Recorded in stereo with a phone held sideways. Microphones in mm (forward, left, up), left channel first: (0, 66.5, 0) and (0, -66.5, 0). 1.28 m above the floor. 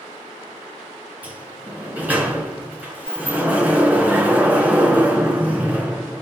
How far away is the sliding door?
About 2.5 m.